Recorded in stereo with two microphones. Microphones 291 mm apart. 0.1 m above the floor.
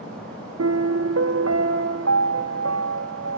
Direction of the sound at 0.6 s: 60° right (ahead or behind).